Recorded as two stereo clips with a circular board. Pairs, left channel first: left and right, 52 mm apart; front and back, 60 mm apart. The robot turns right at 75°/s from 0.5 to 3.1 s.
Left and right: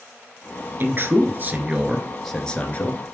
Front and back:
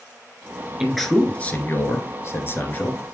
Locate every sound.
0.8 s a man speaking: 105° right, 1.5 m; by 3.0 s 65° left, 1.5 m